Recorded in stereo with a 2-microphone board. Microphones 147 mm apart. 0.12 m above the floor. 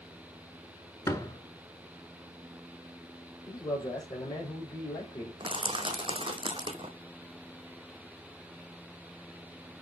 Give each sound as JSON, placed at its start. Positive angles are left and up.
{"t": 1.1, "sound": "a door slam", "side_deg": 20, "distance_m": 0.8}
{"t": 3.5, "sound": "a man speaking", "side_deg": 25, "distance_m": 4.5}
{"t": 5.4, "sound": "crushing", "side_deg": -35, "distance_m": 1.0}